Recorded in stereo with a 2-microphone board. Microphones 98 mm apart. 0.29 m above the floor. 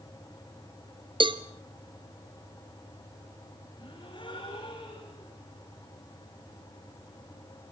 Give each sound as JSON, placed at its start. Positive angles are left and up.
{"t": 1.2, "sound": "a cowbell", "side_deg": -55, "distance_m": 1.1}
{"t": 3.8, "sound": "a gasp", "side_deg": 55, "distance_m": 8.5}